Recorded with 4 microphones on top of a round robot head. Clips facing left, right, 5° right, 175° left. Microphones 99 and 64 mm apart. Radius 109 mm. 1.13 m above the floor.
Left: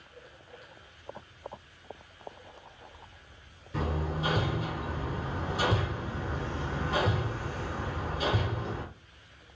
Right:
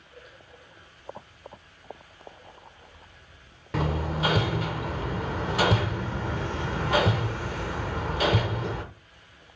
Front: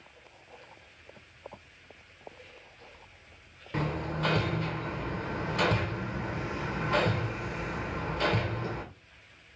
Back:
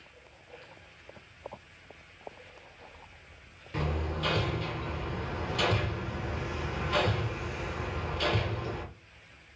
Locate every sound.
3.7 s hammering: 65° right, 0.6 m